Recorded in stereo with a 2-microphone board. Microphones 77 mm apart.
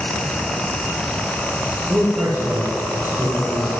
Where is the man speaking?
35° right (ahead or behind), 4 m; by 3.7 s 25° right (ahead or behind), 4.5 m.